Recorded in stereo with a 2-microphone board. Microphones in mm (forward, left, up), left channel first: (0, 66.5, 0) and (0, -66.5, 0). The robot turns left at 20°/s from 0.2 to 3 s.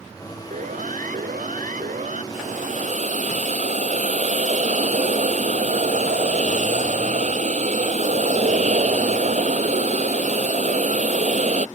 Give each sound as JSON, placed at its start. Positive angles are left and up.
{"t": 0.5, "sound": "a siren", "side_deg": -70}
{"t": 2.3, "sound": "a hiss", "side_deg": -75}